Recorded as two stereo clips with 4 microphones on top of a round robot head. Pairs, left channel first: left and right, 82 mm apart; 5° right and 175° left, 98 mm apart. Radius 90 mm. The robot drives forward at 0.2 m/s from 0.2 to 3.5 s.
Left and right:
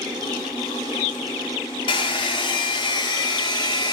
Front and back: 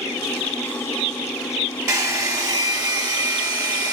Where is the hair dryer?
115° left, 1.1 m; by 3.9 s 125° left, 1.3 m.